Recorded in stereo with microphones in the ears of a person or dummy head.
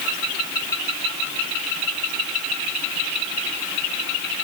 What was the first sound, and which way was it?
Only background noise.